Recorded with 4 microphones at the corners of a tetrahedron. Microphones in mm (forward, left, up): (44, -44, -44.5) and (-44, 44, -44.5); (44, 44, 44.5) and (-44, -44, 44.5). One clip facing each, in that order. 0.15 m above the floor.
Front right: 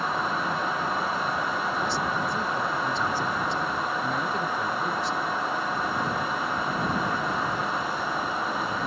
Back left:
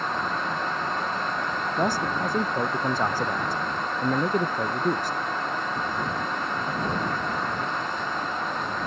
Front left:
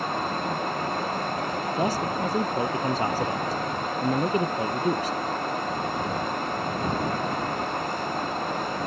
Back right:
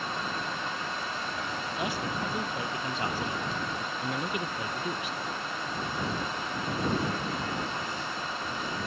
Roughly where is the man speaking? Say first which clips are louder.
Back left 2 dB, front left 7 dB; left.